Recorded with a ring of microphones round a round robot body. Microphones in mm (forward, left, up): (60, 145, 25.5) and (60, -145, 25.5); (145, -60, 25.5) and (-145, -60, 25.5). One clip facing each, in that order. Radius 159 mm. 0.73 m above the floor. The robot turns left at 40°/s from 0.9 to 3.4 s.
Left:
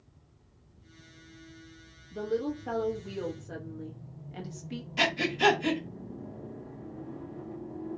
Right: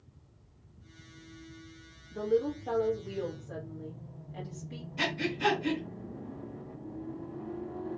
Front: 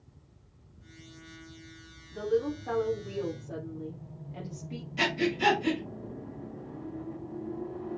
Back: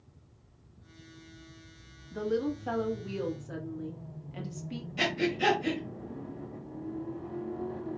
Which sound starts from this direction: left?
Breathing, at 5.0 s.